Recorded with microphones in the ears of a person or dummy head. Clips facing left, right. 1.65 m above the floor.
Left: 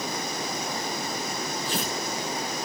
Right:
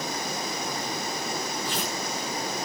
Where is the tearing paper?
30° left (ahead or behind), 4 m.